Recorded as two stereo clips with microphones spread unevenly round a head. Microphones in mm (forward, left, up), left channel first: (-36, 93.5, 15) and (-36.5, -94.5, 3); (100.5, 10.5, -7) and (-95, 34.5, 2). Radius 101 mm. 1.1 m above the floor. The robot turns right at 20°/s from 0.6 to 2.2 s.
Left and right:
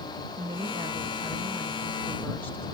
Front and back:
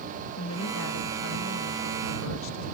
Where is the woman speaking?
25° right; by 2.6 s 5° left.